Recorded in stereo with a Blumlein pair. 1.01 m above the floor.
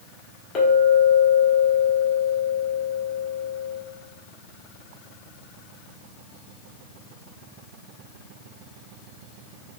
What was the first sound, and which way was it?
A clink, 25° left.